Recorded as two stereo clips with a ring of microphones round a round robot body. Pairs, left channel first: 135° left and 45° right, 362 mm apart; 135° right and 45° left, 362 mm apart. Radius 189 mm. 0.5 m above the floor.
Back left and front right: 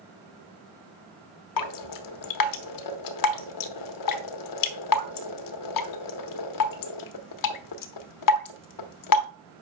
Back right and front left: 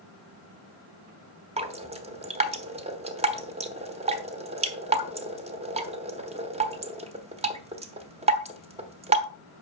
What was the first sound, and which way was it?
Dripping, 115° left.